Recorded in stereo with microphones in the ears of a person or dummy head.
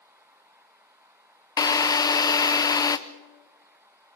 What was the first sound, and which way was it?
A drill, 20° left (ahead or behind).